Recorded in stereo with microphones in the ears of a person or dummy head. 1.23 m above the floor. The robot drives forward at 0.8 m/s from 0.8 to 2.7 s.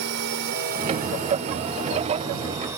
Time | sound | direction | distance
0.0 | a drone | 60° right (ahead or behind) | ?